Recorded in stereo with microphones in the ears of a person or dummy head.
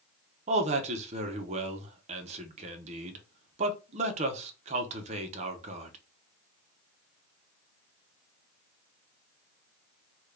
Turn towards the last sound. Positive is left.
turn(degrees=-40)  # may be behind; listen again after turning